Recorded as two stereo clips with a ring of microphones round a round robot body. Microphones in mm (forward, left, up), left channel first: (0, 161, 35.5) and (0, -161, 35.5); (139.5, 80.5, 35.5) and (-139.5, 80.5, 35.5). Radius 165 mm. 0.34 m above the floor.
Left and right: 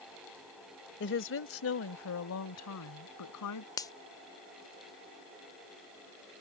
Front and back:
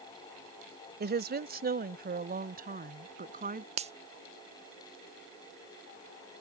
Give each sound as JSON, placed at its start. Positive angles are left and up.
{"t": 1.0, "sound": "a woman speaking", "azimuth_deg": 135}
{"t": 3.8, "sound": "a finger snap", "azimuth_deg": 155}